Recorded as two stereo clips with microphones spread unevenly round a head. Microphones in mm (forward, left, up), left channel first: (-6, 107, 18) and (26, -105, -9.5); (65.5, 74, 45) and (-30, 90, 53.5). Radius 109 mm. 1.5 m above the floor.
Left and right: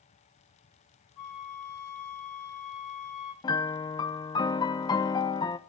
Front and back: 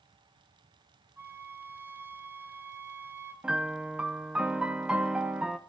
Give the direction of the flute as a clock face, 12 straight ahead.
9 o'clock.